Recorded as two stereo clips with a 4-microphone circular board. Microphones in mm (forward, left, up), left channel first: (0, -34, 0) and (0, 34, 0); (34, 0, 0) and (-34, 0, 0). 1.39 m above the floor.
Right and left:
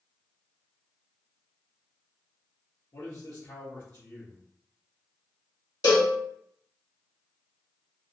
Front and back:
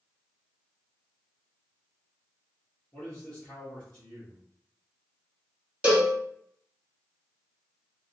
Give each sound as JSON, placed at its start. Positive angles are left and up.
{"t": 2.9, "sound": "a man speaking", "azimuth_deg": -65, "distance_m": 1.3}
{"t": 5.8, "sound": "a cowbell", "azimuth_deg": -110, "distance_m": 1.3}